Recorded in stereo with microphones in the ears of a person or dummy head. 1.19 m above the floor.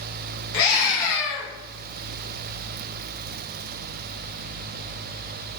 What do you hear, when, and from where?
0.5 s a scream: 75° left (ahead or behind), 1.1 m